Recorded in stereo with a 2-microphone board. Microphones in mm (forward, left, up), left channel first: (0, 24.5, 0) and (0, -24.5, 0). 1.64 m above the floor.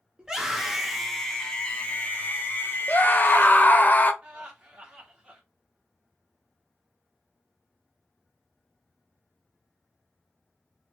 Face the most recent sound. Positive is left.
turn(degrees=-15)  # may be behind; listen again after turning